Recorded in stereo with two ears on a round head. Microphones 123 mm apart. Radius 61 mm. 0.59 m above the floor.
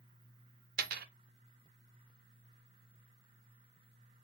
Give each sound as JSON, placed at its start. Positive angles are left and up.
{"t": 0.8, "sound": "a dropped coin", "side_deg": -75, "distance_m": 0.6}